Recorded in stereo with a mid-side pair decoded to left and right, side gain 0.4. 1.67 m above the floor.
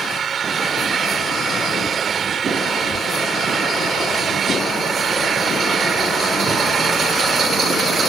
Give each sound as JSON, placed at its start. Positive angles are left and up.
{"t": 0.0, "sound": "an engine running", "azimuth_deg": -55}